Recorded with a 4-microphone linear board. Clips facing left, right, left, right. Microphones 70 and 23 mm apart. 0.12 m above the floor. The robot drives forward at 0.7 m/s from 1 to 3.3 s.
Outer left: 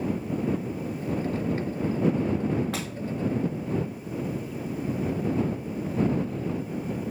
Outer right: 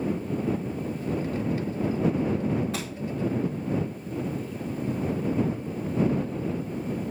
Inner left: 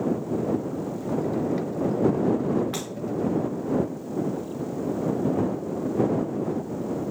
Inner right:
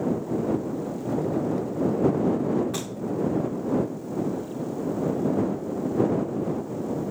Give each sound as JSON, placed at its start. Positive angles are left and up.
{"t": 2.7, "sound": "breaking glass", "side_deg": 75, "distance_m": 5.0}